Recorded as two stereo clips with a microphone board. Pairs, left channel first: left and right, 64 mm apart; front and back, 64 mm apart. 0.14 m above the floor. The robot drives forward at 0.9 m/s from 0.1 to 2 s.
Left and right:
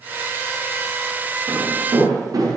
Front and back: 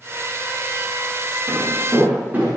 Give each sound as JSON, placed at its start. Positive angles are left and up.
{"t": 1.5, "sound": "footsteps", "azimuth_deg": -120, "distance_m": 7.5}